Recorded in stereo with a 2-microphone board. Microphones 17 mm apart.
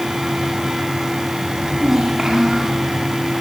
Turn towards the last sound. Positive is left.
turn(degrees=-40)  # may be behind; listen again after turning